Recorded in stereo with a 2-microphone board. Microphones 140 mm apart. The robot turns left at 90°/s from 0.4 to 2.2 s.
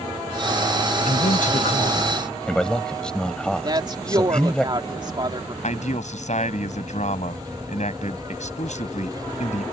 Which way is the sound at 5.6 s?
65° left (ahead or behind).